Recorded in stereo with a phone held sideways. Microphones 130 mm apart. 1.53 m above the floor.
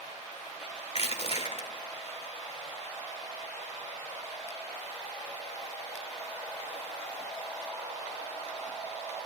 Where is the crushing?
50° left (ahead or behind), 1.7 m.